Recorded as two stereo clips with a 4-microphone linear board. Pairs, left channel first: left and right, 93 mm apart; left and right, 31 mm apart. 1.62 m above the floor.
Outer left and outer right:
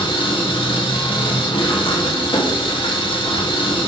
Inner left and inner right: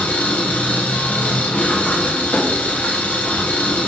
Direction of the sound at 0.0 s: 70° left (ahead or behind).